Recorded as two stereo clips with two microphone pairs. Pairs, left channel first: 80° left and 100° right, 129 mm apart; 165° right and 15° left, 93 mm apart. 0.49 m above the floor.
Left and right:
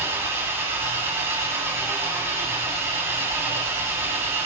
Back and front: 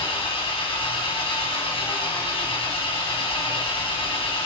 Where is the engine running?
170° right, 3 m.